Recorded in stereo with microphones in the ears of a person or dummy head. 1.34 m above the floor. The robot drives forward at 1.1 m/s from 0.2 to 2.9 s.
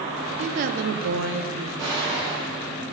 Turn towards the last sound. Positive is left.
turn(degrees=-15)  # may be behind; listen again after turning